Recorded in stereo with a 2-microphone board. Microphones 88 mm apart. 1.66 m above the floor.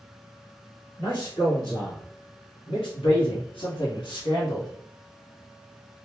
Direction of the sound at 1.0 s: 45° left (ahead or behind).